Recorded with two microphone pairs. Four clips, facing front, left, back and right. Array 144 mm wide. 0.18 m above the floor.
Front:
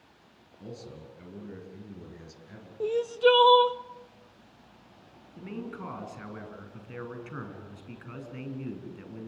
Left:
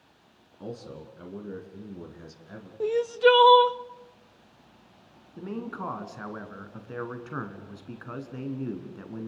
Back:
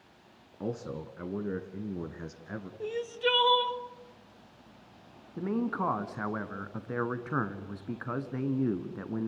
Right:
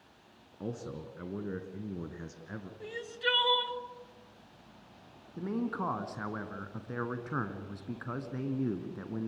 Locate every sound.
0.6 s a man speaking: 170° right, 2.5 m
2.8 s crying: 60° left, 0.6 m
5.4 s a man speaking: straight behind, 2 m